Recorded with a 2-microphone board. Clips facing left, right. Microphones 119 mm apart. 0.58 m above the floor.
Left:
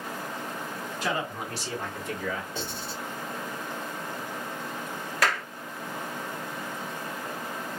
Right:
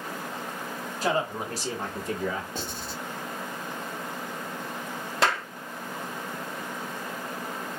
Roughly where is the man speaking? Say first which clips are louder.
Right 4 dB; right.